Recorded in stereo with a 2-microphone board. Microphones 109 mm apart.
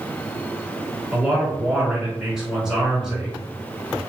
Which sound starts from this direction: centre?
A man speaking, at 1.1 s.